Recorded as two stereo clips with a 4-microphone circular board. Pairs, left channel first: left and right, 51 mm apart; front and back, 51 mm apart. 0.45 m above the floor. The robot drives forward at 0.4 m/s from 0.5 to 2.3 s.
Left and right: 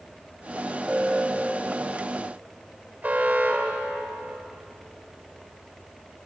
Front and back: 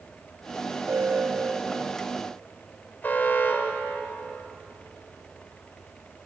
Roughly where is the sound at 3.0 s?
Ahead right.